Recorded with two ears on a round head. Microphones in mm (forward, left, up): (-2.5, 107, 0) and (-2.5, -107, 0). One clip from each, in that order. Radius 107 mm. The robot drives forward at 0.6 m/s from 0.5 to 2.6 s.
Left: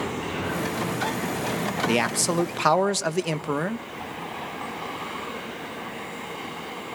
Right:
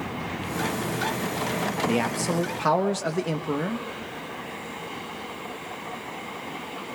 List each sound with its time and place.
1.9 s a man speaking: 35° left (ahead or behind), 1.1 m; by 3.9 s 40° left (ahead or behind), 1.0 m